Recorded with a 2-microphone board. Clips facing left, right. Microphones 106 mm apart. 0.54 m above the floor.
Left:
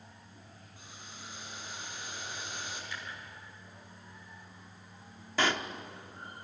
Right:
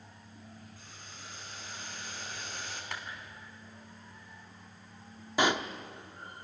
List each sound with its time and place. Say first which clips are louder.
0.8 s boiling: left 1 dB; 15° left (ahead or behind), 5.5 m
2.9 s a clap: right 6 dB; 70° right (ahead or behind), 3.5 m
5.4 s a pop: right 3 dB; 15° right (ahead or behind), 0.9 m